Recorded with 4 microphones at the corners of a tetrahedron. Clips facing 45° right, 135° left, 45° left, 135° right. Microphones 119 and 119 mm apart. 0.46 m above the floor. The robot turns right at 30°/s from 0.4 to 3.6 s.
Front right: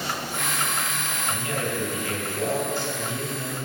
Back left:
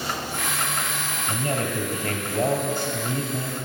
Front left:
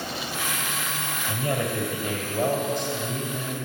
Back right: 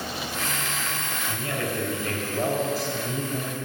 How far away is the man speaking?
About 2.5 m.